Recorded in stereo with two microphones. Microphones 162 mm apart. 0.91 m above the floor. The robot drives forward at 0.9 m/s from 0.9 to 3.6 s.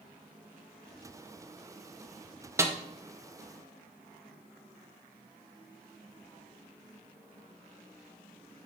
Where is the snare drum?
15° right (ahead or behind), 0.8 m.